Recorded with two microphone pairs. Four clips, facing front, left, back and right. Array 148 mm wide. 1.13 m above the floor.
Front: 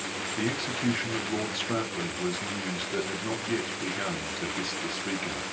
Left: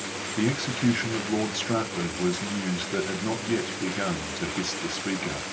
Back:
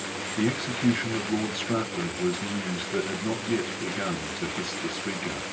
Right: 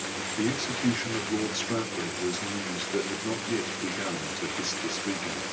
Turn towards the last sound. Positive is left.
turn(degrees=80)